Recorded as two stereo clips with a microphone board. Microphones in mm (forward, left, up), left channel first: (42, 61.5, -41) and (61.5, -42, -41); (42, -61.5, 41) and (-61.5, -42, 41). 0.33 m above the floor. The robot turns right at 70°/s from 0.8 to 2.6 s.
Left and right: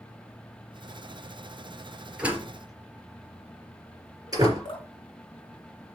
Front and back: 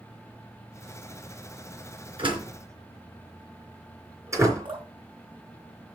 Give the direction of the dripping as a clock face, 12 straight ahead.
7 o'clock.